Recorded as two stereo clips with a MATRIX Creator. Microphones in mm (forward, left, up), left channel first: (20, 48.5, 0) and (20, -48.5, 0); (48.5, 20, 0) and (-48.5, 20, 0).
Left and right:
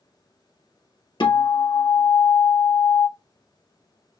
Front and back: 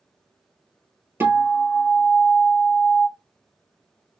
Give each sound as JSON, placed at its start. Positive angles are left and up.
{"t": 1.2, "sound": "a guitar", "azimuth_deg": 115, "distance_m": 1.4}